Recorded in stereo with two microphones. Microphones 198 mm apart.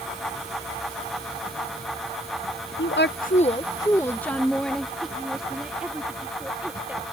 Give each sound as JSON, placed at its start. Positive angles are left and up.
{"t": 2.8, "sound": "a woman speaking", "side_deg": 80}